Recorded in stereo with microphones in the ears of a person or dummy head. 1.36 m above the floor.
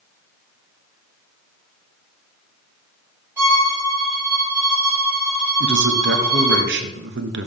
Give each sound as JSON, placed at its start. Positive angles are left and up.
{"t": 3.4, "sound": "a violin", "side_deg": -10, "distance_m": 3.0}
{"t": 5.6, "sound": "a man speaking", "side_deg": -55, "distance_m": 0.6}